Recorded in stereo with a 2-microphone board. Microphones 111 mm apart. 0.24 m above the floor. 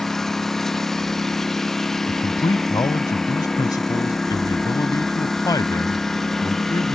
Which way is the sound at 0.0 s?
5° left (ahead or behind).